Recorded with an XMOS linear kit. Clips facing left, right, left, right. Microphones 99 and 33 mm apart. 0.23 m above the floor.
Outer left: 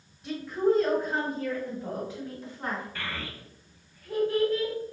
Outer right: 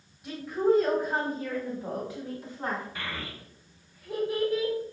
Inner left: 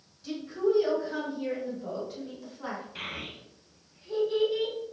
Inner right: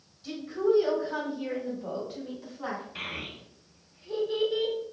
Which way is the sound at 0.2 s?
5° right (ahead or behind).